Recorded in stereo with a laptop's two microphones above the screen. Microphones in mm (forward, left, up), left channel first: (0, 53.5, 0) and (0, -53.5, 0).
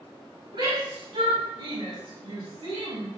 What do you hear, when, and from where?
0.5 s a shout: 65° right (ahead or behind), 7 m; by 3.1 s 80° right, 6.5 m